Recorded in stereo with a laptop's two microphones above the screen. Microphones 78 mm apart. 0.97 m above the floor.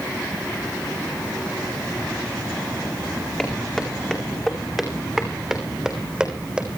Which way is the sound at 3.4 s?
10° left (ahead or behind).